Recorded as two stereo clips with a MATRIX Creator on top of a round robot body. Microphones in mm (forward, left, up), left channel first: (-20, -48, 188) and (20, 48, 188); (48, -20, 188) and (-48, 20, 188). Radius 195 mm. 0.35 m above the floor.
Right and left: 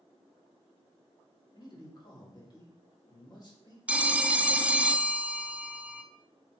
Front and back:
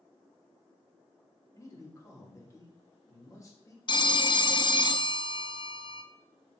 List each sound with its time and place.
1.5 s a man speaking: 75° right, 1.8 m
3.9 s a phone ringing: 5° right, 0.5 m